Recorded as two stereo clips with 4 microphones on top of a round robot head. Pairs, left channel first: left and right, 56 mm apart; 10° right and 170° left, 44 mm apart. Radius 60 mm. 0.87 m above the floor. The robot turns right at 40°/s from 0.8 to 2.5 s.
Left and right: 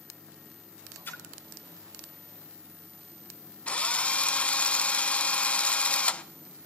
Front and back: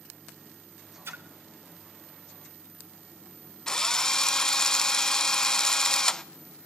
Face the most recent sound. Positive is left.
turn(degrees=55)